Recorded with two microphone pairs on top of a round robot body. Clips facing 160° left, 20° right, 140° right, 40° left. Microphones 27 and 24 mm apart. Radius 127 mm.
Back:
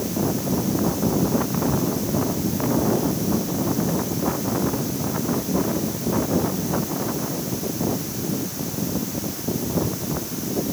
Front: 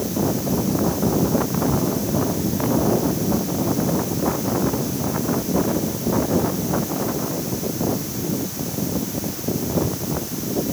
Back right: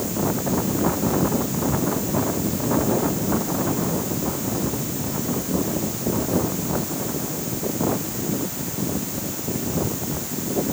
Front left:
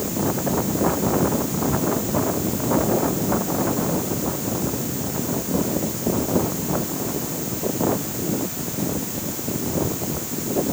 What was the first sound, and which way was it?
Only background noise.